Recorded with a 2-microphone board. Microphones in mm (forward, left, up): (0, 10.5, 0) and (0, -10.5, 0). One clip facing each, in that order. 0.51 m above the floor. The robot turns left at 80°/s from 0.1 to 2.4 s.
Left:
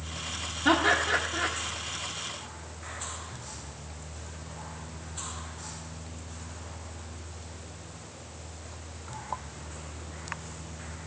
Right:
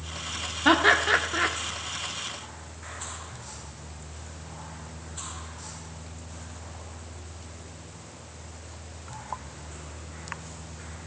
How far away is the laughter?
About 0.9 m.